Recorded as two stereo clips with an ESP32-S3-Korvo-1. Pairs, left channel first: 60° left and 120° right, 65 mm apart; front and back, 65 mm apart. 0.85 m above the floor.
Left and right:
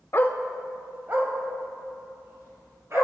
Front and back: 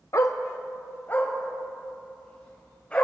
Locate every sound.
0.1 s a dog barking: 20° left, 0.6 m; by 3.0 s 75° right, 4.5 m